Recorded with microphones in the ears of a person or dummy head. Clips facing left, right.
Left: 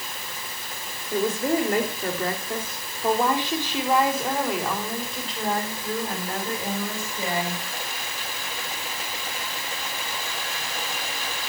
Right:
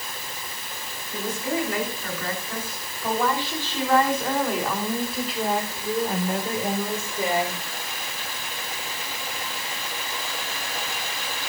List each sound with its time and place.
1.1 s a woman speaking: 50° left (ahead or behind), 4.5 m; by 7.6 s 20° right (ahead or behind), 5.5 m